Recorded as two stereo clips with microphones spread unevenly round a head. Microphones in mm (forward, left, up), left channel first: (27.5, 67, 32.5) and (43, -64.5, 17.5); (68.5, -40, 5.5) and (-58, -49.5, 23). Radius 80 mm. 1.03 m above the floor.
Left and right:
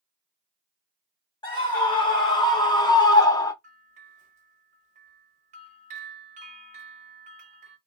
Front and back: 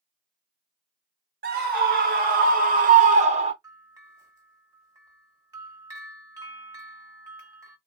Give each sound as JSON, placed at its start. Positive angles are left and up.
{"t": 1.4, "sound": "a scream", "azimuth_deg": 160, "distance_m": 1.6}
{"t": 3.6, "sound": "a bell", "azimuth_deg": -110, "distance_m": 1.3}